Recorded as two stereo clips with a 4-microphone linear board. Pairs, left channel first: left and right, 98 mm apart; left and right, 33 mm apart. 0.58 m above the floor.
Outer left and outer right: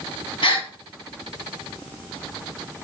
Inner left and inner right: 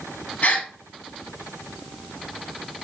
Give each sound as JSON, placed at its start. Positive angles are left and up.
{"t": 0.4, "sound": "a gasp", "side_deg": 65, "distance_m": 0.7}